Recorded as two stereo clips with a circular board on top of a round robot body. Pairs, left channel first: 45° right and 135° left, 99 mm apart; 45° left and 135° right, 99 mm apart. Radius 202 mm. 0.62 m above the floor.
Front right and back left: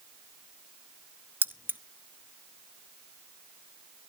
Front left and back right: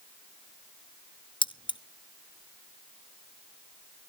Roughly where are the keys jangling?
Ahead left.